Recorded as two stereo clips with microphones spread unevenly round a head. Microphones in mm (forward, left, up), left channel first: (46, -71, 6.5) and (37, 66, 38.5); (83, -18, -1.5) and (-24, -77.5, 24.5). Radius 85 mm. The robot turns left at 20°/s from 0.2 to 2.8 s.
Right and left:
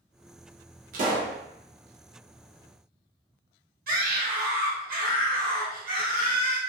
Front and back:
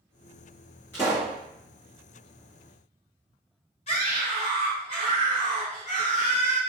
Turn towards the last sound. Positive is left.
turn(degrees=75)